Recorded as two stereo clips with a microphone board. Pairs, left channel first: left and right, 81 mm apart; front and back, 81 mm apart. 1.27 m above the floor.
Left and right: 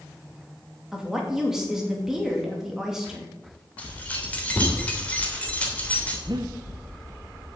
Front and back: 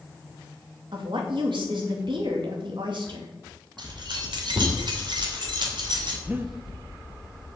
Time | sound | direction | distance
0.9 | a woman speaking | 175° right | 2.5 m
3.8 | keys jangling | 160° left | 3 m
6.3 | breathing | 115° right | 0.9 m